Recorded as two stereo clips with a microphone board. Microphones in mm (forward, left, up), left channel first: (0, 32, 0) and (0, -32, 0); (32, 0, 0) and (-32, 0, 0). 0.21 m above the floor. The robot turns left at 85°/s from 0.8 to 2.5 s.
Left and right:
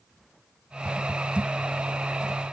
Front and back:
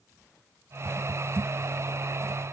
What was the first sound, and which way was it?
Only background noise.